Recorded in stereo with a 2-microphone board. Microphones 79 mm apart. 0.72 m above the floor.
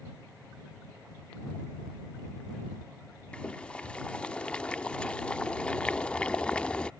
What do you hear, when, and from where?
3.3 s boiling: 10° left (ahead or behind)